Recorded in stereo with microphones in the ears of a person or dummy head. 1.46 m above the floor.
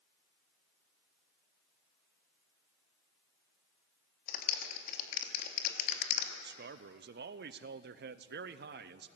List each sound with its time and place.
4.3 s a clap: 50° left (ahead or behind), 3 m
6.4 s a man speaking: 55° right (ahead or behind), 0.7 m